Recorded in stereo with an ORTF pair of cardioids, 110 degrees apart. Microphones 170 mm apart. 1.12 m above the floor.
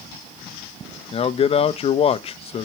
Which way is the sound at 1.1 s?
35° left.